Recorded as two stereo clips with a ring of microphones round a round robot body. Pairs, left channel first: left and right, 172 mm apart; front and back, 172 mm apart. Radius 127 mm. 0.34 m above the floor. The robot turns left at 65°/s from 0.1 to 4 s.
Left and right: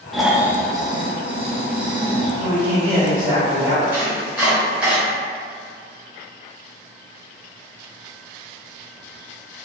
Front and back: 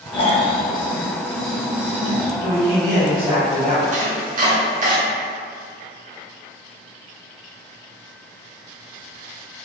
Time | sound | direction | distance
0.1 | snoring | straight ahead | 0.5 m
2.4 | a man speaking | 40° right | 1.3 m
3.9 | chopping | 165° right | 0.7 m